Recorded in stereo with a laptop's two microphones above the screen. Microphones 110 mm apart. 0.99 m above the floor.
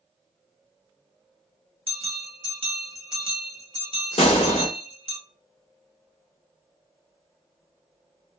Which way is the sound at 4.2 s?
75° left (ahead or behind).